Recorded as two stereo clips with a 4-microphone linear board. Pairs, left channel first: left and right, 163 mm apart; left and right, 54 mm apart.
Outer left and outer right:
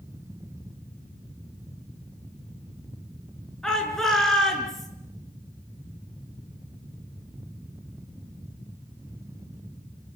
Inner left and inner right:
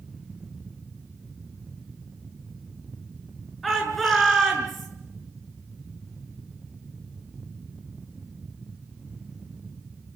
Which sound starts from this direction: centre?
A shout, at 3.6 s.